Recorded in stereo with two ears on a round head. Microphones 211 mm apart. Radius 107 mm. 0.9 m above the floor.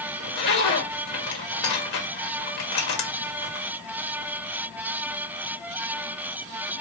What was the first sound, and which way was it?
A zipper, 45° left (ahead or behind).